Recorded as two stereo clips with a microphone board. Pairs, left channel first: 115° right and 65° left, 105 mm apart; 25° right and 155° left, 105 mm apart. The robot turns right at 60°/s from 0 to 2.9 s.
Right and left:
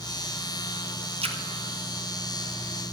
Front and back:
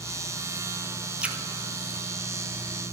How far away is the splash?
About 0.9 m.